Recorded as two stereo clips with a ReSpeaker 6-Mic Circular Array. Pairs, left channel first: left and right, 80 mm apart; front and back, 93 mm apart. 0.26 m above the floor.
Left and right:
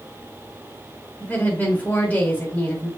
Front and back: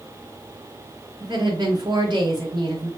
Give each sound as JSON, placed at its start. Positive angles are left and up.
{"t": 1.2, "sound": "a woman speaking", "azimuth_deg": 155, "distance_m": 3.5}